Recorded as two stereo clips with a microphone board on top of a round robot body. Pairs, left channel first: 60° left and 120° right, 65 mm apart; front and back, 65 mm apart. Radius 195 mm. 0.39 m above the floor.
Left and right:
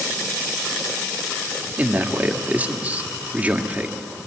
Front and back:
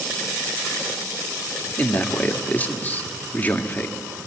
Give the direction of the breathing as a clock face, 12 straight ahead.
No breathing in this recording.